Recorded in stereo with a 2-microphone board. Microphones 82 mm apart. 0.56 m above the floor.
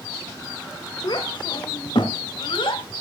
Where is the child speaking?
65° left (ahead or behind), 1.1 m; by 2.9 s 80° left, 1.8 m.